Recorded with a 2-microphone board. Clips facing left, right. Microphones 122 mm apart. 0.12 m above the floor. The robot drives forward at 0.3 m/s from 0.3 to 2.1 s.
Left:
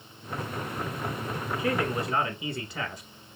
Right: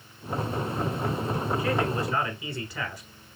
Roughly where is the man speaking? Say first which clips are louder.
Left 3 dB; left.